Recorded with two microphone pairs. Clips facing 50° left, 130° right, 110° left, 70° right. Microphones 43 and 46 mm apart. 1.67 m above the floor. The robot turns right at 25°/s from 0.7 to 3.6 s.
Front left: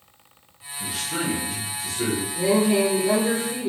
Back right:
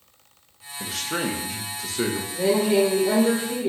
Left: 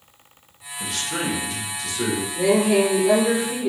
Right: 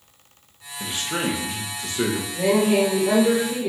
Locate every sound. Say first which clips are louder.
0.8 s a man speaking: back right 1 dB, right 1 dB; 145° right, 0.8 m; by 2.2 s 110° right, 0.8 m
2.3 s a woman speaking: even, left 1 dB; 145° right, 2 m; by 3.7 s 115° right, 2 m